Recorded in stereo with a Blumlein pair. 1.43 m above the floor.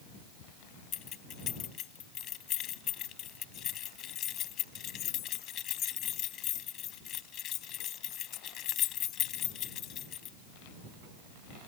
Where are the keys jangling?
35° left.